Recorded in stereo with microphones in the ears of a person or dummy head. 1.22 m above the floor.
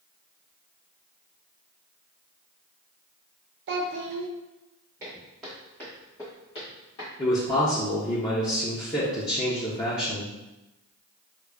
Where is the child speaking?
65° right (ahead or behind), 0.7 m.